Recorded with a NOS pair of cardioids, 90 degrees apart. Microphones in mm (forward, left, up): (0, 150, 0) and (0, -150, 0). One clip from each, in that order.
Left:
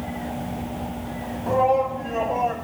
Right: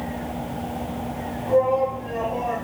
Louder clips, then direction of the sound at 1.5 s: Even; 55° left.